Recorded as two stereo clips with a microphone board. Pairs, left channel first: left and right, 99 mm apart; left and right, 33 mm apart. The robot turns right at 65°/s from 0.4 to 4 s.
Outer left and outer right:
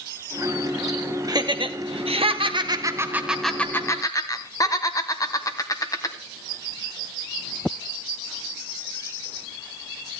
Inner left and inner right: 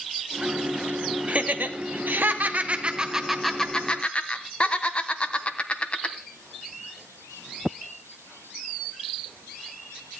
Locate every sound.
1.3 s laughter: 40° right (ahead or behind), 1.3 m; by 6.2 s 40° left (ahead or behind), 1.3 m